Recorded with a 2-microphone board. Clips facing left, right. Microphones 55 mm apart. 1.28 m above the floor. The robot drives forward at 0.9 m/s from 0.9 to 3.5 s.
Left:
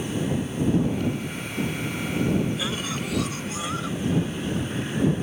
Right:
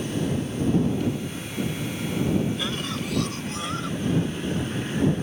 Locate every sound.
2.6 s a cough: 5° left (ahead or behind)